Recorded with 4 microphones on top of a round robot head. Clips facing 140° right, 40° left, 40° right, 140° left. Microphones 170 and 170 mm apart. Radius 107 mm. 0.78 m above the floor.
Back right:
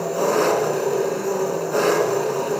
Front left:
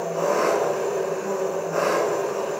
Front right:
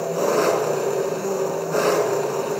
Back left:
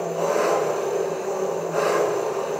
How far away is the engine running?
About 3 m.